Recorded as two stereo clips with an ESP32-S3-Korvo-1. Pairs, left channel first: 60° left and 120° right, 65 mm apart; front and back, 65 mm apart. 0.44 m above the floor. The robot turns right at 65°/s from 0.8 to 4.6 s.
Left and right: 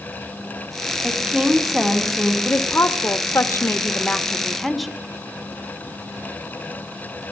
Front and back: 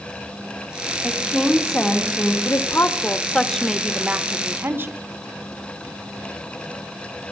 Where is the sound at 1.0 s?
105° right, 1.4 m; by 2.4 s 20° right, 1.4 m.